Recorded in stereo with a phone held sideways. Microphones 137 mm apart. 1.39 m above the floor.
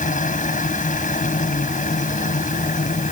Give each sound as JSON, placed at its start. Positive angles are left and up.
{"t": 0.0, "sound": "a machine running", "side_deg": 70}